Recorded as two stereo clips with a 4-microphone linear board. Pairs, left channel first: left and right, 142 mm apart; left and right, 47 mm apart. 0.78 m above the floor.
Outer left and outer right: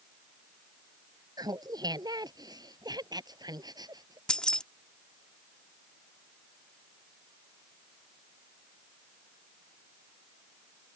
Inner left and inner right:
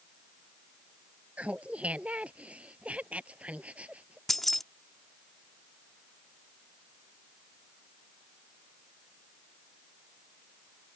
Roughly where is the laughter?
Right.